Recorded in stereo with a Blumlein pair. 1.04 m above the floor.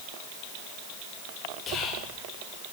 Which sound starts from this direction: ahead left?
Whispering, at 1.7 s.